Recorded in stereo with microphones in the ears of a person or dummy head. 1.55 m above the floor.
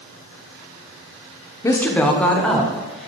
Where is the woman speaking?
15° left (ahead or behind), 0.7 m; by 3.1 s centre (ahead or behind), 1.4 m.